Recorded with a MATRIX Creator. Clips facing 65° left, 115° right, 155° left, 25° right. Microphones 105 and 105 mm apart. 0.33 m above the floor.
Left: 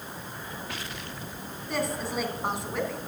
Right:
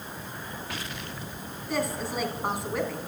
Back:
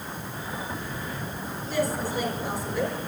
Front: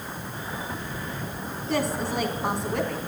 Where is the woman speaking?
25° right, 3 m.